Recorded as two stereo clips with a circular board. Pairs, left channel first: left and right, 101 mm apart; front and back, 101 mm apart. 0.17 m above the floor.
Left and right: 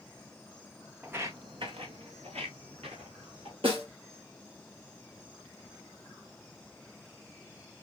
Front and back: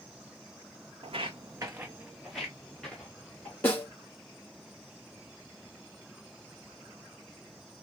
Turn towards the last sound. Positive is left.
turn(degrees=-70)